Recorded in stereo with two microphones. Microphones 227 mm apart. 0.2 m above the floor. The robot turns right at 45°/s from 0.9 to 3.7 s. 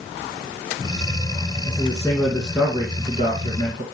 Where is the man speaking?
145° left, 2 m; by 3.8 s 120° right, 2 m.